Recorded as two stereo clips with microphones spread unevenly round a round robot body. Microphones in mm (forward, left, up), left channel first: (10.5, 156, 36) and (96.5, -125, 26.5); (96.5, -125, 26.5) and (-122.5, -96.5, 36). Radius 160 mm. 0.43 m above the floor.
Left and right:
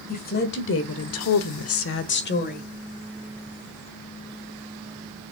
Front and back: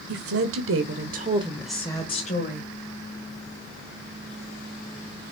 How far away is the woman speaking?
About 1.9 m.